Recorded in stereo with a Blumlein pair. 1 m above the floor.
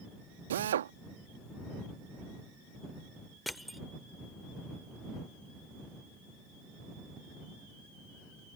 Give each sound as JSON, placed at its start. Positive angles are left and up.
{"t": 0.5, "sound": "a drill", "azimuth_deg": -60}
{"t": 3.5, "sound": "crushing", "azimuth_deg": 0}